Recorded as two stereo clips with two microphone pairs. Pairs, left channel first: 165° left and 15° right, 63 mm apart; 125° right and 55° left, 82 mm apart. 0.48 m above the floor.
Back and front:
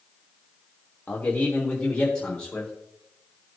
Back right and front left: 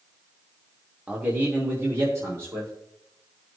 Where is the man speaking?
115° left, 1.3 m; by 2.7 s 90° left, 2.0 m.